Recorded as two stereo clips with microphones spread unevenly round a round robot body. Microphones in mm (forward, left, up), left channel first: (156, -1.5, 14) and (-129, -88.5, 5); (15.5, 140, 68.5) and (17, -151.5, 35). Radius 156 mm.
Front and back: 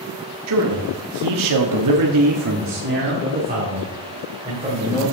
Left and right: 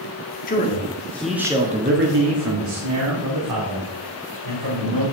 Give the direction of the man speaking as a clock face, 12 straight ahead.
7 o'clock.